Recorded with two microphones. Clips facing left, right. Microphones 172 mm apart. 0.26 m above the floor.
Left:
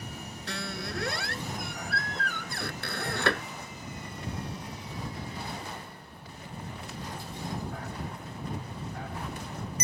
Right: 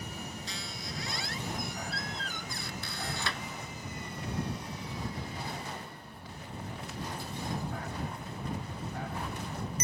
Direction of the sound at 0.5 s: 60° left (ahead or behind).